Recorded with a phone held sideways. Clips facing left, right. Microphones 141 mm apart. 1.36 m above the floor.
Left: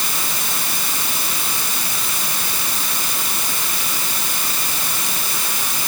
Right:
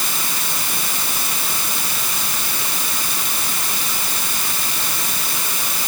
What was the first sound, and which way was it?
Only background noise.